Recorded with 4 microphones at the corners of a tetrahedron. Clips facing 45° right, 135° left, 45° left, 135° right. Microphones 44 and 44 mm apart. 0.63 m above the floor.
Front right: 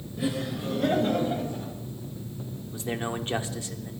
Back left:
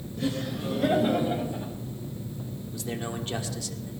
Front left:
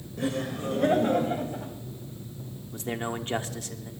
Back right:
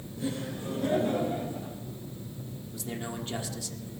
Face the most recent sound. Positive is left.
turn(degrees=15)